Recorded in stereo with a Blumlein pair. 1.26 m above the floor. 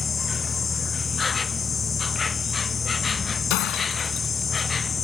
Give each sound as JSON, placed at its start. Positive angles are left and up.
{"t": 0.0, "sound": "an insect", "azimuth_deg": 15}
{"t": 3.5, "sound": "breaking glass", "azimuth_deg": 40}